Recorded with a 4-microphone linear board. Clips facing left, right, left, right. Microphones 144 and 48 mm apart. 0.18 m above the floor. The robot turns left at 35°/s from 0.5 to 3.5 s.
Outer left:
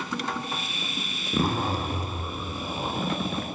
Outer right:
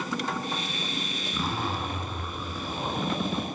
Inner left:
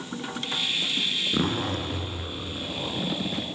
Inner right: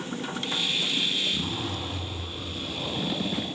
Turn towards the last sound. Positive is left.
turn(degrees=-10)